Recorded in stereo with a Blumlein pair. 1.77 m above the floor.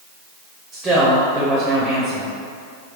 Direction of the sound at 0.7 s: 15° right.